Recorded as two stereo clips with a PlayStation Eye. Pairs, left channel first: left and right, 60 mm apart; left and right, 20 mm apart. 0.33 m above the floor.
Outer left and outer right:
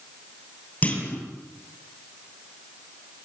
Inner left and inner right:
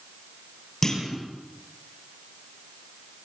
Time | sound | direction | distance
0.8 | a clunk | 25° left (ahead or behind) | 7 m